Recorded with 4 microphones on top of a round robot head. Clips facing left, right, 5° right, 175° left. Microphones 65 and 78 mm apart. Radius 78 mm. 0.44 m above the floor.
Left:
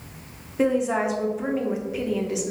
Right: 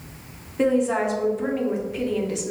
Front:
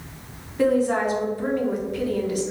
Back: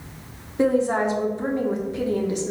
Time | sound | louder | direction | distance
0.6 | a woman speaking | right 1 dB, even | 170° left | 0.8 m